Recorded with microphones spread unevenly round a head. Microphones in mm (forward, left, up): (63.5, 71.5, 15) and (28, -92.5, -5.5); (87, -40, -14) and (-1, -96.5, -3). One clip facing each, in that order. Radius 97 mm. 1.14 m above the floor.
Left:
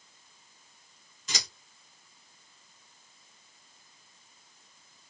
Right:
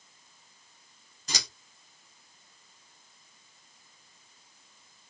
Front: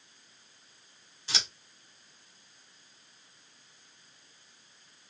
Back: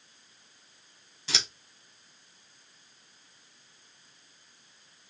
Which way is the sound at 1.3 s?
165° right.